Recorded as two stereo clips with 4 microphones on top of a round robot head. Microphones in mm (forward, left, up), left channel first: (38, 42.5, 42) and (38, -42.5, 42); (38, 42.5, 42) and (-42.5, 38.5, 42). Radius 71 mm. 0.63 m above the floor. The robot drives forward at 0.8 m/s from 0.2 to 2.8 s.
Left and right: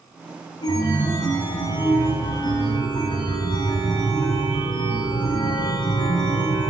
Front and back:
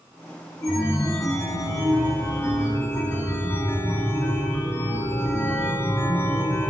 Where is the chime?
45° left, 6 m; by 6.7 s 60° left, 5 m.